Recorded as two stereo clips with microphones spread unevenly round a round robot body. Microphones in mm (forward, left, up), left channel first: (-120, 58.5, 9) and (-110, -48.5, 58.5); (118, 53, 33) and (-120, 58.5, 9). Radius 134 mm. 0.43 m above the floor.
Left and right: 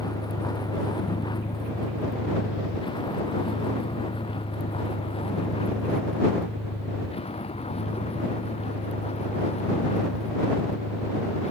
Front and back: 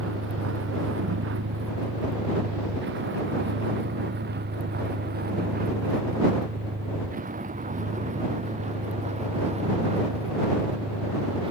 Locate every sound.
0.0 s a vehicle: 145° left; by 11.5 s 110° left